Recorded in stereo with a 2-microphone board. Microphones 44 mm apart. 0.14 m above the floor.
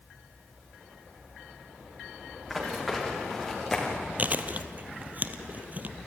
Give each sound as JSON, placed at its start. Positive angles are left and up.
{"t": 2.5, "sound": "running footsteps", "side_deg": 0, "distance_m": 6.5}
{"t": 4.2, "sound": "chewing", "side_deg": -40, "distance_m": 0.9}